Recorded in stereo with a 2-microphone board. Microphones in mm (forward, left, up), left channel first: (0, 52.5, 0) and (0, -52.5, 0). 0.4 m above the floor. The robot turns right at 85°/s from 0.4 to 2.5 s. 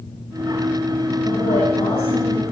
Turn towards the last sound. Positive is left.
turn(degrees=165)